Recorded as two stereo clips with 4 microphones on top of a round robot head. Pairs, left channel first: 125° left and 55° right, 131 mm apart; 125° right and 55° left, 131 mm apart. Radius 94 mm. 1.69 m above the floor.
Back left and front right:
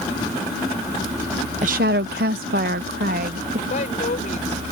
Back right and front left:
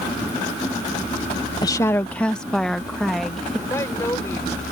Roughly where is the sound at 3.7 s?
Behind.